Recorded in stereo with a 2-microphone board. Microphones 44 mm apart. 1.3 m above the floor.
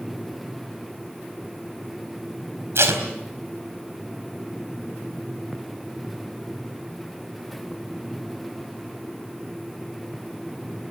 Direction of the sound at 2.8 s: 65° right (ahead or behind).